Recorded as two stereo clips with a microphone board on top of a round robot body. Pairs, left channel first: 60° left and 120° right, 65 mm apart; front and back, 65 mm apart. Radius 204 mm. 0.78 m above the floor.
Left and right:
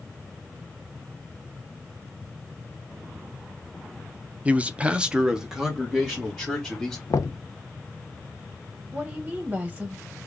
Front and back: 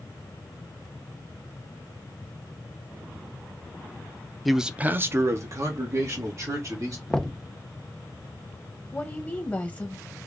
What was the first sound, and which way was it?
A man speaking, 85° right.